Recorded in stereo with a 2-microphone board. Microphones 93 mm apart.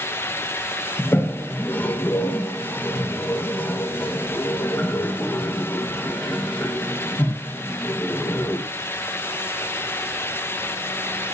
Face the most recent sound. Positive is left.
turn(degrees=20)  # may be behind; listen again after turning